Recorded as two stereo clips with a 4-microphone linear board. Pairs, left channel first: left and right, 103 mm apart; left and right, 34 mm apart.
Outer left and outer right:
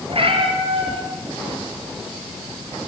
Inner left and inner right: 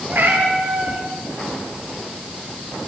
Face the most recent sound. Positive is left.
turn(degrees=-65)  # may be behind; listen again after turning